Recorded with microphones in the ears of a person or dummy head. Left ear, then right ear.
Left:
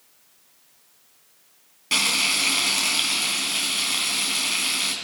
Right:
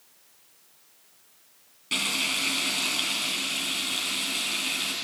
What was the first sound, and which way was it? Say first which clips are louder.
Frying: left 5 dB; 30° left (ahead or behind).